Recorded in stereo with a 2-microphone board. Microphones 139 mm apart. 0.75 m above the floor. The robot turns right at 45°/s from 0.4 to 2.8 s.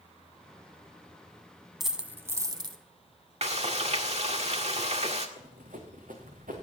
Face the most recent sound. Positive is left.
turn(degrees=-80)